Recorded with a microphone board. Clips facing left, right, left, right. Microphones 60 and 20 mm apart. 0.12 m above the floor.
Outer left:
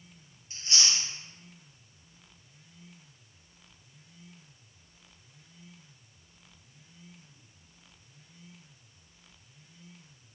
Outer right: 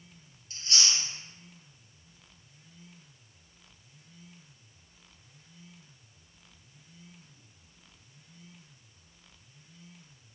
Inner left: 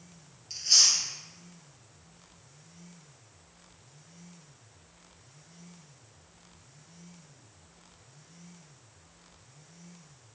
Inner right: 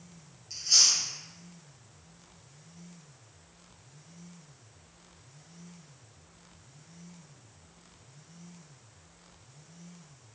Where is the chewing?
25° left (ahead or behind), 1.5 m.